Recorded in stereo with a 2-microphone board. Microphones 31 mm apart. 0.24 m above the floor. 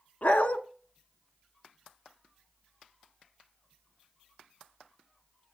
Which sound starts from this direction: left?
A dog barking, at 0.2 s.